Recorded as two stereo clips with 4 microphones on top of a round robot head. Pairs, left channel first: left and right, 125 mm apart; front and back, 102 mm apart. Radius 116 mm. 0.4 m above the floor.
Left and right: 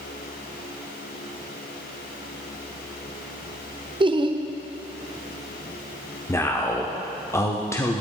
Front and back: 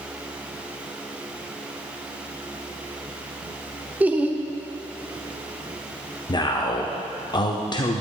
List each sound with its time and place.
4.0 s laughter: 110° right, 1.0 m
6.3 s a man speaking: 30° left, 1.0 m